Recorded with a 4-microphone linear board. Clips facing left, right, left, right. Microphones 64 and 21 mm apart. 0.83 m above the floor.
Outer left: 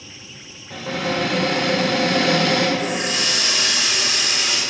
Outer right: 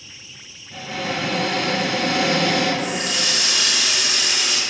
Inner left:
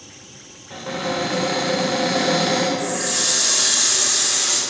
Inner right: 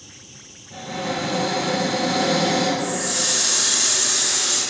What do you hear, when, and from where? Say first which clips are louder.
0.7 s a cupboard door: outer left 3 dB, inner left 2 dB; 80° left, 2.5 m
2.8 s a running tap: outer left 1 dB, inner left 1 dB; 30° left (ahead or behind), 1.8 m